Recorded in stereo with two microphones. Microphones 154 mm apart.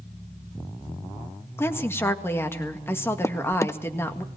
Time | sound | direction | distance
1.6 | a woman speaking | 15° left (ahead or behind) | 1.8 m
3.2 | a drawer | 20° left (ahead or behind) | 0.5 m